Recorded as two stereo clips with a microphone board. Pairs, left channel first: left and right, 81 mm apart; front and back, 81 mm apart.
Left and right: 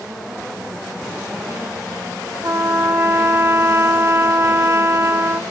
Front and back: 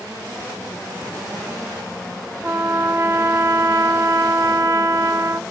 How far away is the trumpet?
About 0.6 m.